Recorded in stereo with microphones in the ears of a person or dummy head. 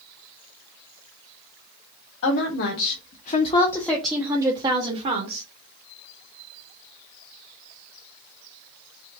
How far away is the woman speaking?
About 1.1 m.